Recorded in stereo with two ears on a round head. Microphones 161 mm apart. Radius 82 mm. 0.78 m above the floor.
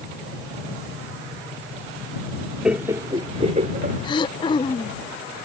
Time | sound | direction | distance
2.6 | laughter | 5° right (ahead or behind) | ?
4.0 | throat clearing | 25° left (ahead or behind) | ?